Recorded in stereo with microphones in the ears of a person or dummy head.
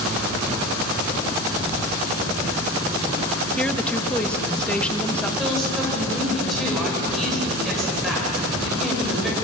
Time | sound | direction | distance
3.6 | a woman speaking | 5° left (ahead or behind) | 1.8 m
5.4 | a woman speaking | 5° left (ahead or behind) | 6.5 m